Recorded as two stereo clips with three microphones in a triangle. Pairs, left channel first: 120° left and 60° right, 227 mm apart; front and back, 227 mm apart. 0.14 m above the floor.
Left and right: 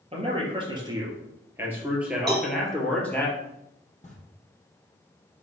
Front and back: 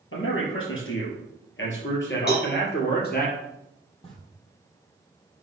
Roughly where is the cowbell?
Ahead right.